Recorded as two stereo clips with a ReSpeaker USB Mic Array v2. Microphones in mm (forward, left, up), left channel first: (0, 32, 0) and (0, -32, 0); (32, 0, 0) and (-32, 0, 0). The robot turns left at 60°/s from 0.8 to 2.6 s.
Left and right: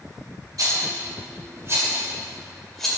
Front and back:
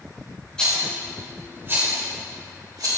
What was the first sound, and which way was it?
A rattle, 75° right.